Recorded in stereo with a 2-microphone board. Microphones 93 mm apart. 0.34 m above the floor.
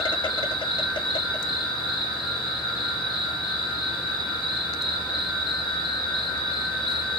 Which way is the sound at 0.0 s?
55° left (ahead or behind).